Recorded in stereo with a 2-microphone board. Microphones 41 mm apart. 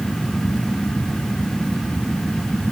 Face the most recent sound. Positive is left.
No sound to turn to.